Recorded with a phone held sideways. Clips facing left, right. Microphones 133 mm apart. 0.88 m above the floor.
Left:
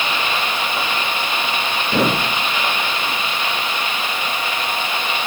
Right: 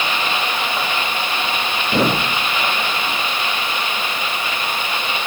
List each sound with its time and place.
Only background noise.